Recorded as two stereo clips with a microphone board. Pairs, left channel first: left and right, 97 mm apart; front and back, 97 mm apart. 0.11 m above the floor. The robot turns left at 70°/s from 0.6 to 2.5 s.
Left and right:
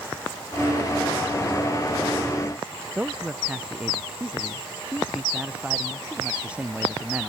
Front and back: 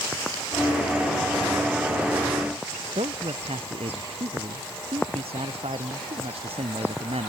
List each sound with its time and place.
3.0 s a man speaking: 165° right